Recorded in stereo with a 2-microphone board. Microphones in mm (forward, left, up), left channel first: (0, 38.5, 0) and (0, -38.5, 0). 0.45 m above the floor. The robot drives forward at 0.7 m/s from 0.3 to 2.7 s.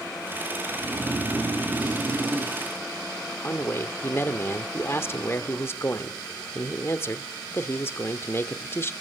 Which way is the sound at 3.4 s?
30° left (ahead or behind).